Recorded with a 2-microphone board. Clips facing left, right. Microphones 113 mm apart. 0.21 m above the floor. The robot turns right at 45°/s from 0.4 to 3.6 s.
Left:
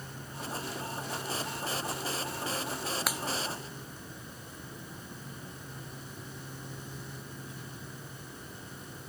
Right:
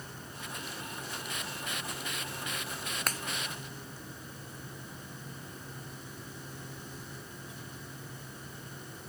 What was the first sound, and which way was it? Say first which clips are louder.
A finger snap: left 2 dB; 10° left (ahead or behind).